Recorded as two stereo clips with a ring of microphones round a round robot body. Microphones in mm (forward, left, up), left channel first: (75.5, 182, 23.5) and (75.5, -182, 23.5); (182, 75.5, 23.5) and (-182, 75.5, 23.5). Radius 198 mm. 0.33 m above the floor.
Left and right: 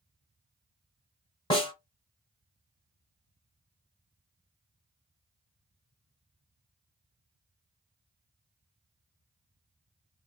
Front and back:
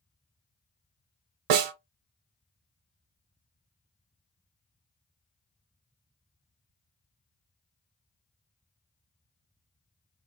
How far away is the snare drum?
About 0.6 m.